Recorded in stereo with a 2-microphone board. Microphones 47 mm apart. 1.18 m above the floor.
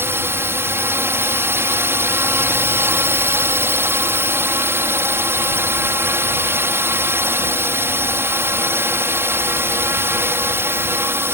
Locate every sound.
0.0 s a drone: 55° right (ahead or behind)